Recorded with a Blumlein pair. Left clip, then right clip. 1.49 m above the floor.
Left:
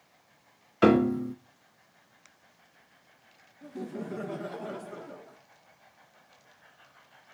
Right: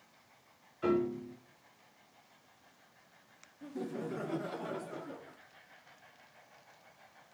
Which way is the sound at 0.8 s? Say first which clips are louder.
Left 10 dB; 45° left.